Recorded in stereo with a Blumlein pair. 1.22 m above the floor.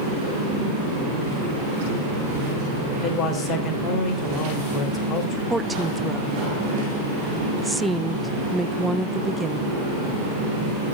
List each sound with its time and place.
2.9 s a man speaking: 20° left, 4 m
5.5 s a woman speaking: 5° right, 0.6 m